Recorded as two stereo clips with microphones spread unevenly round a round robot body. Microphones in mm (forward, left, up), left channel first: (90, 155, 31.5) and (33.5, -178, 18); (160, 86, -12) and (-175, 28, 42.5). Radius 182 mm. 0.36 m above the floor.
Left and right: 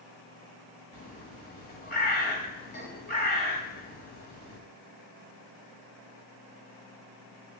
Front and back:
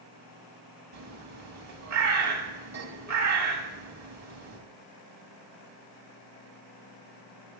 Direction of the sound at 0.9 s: 145° left.